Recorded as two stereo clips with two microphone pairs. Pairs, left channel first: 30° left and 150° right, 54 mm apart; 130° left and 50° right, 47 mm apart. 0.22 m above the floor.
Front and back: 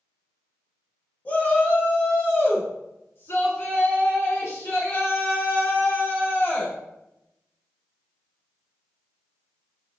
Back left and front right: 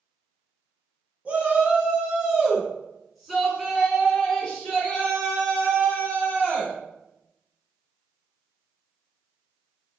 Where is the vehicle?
I don't hear a vehicle.